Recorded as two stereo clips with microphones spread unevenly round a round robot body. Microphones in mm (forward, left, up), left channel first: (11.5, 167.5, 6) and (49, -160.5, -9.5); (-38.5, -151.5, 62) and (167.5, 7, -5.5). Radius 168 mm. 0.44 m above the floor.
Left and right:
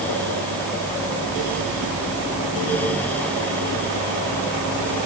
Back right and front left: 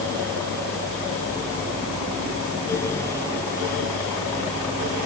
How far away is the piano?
No piano in this recording.